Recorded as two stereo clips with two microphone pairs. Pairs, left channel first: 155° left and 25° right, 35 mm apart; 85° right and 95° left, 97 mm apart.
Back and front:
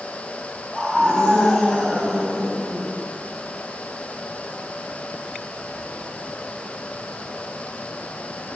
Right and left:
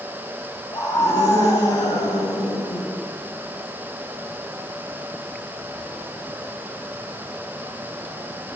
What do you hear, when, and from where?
0.7 s a scream: 130° right, 8.5 m; by 2.9 s 135° right, 11.5 m